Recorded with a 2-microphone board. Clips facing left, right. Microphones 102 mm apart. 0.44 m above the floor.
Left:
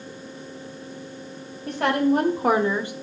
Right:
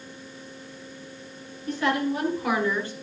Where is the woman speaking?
65° left (ahead or behind), 2.5 m; by 2.9 s 10° left (ahead or behind), 1.2 m.